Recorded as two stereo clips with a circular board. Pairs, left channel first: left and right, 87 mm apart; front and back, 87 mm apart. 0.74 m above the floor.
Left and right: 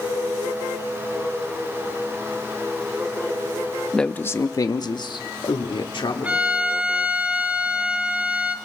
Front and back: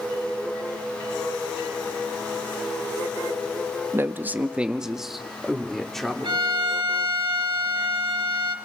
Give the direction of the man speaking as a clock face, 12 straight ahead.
6 o'clock.